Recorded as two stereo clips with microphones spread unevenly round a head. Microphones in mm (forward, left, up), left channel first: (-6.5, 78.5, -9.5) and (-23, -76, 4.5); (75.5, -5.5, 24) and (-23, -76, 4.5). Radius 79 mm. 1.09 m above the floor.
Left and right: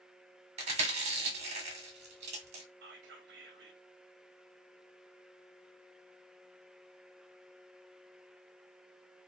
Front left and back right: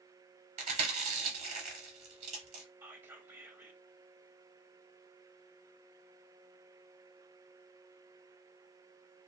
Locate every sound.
0.6 s chewing: 130° right, 1.0 m
2.8 s whispering: 85° right, 0.5 m